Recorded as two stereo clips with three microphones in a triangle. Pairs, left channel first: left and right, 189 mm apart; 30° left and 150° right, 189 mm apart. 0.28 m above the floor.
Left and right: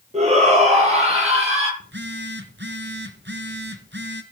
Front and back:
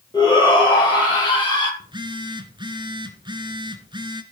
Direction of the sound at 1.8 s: 85° right.